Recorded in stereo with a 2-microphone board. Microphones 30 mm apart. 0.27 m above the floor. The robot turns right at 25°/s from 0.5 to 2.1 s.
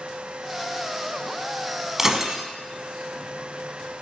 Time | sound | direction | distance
2.0 | breaking glass | 15° right (ahead or behind) | 0.7 m